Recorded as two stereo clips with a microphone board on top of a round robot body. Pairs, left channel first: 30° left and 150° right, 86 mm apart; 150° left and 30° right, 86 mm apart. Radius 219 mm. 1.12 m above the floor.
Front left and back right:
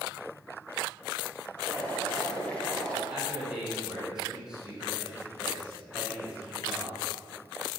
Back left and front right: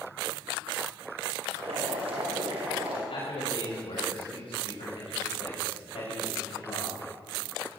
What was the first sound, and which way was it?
Boiling, 45° right.